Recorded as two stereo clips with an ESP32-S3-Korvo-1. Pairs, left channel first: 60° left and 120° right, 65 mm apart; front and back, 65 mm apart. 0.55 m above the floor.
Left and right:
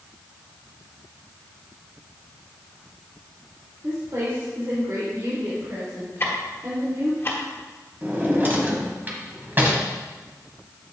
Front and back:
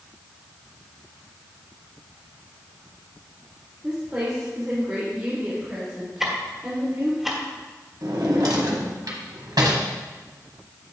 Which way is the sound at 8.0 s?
Straight behind.